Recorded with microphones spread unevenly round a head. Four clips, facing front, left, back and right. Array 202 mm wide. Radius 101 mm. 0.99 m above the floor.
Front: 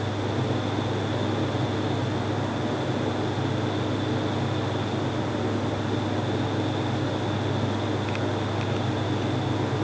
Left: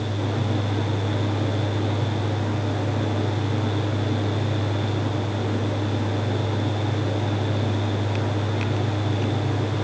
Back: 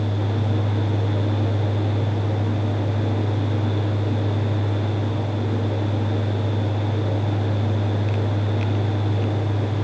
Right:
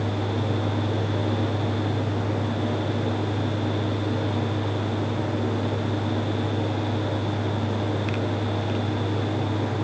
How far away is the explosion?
I don't hear an explosion.